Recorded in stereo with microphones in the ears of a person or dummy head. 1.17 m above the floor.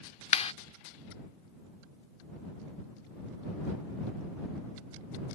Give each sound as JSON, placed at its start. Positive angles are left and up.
{"t": 0.3, "sound": "a clap", "side_deg": 40}